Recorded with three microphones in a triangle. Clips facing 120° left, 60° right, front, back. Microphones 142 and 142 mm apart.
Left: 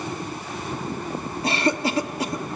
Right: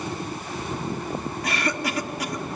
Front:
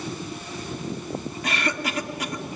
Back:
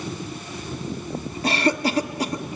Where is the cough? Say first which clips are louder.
Left 6 dB, back 8 dB; 155° left, 1.1 m.